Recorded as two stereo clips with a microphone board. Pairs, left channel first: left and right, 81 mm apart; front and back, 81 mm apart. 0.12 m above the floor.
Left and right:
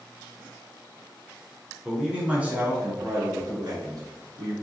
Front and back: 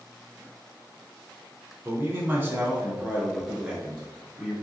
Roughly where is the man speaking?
Behind.